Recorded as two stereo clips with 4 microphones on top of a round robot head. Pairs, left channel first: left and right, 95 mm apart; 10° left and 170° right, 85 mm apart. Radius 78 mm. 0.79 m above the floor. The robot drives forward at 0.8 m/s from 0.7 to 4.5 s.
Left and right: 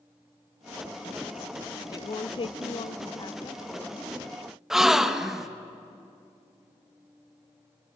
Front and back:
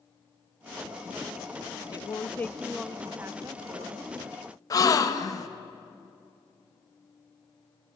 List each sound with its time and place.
1.9 s a woman speaking: 45° left, 0.9 m; by 4.1 s 155° left, 1.4 m
4.7 s a gasp: 5° right, 1.2 m